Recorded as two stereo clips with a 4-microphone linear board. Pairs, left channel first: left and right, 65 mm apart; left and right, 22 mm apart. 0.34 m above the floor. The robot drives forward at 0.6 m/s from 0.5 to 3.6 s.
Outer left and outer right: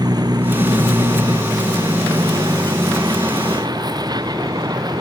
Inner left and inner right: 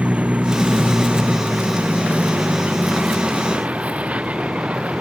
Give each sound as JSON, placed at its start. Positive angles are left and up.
{"t": 0.0, "sound": "a vehicle", "side_deg": -75}